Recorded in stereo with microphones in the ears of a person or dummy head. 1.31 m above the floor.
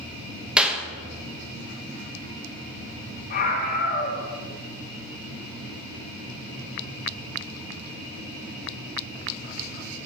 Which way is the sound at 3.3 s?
45° left (ahead or behind).